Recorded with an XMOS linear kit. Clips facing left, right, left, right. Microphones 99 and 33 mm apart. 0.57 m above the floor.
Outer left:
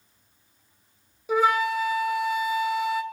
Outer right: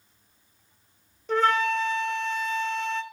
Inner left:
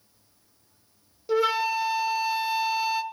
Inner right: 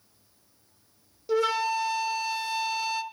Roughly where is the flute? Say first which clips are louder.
Outer left 1 dB, inner left 2 dB; centre.